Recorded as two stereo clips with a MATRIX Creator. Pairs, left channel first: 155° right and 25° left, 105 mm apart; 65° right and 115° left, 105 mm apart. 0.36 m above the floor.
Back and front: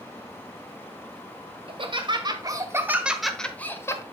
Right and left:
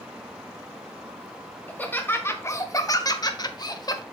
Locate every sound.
1.7 s laughter: 5° left, 1.5 m; by 4.0 s 110° right, 1.2 m